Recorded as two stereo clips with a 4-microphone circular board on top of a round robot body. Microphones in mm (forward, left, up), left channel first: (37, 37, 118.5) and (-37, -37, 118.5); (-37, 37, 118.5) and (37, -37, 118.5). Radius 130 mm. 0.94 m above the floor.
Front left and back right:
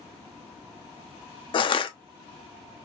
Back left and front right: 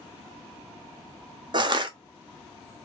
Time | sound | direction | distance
1.5 | crushing | 5° left | 0.6 m